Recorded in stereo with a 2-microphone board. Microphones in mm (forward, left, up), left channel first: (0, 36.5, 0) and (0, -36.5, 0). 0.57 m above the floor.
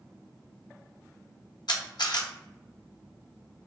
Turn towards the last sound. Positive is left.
turn(degrees=70)  # may be behind; listen again after turning